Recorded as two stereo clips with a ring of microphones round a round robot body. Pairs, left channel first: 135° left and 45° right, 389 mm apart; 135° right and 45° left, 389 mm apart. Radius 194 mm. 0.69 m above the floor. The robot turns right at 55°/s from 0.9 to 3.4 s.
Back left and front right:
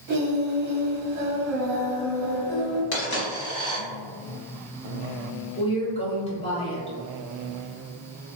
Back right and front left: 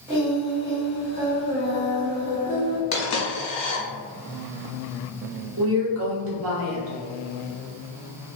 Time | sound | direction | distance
0.1 | singing | 35° right | 0.9 m
2.9 | a dropped coin | 170° right | 1.1 m
5.6 | a woman speaking | 70° left | 0.9 m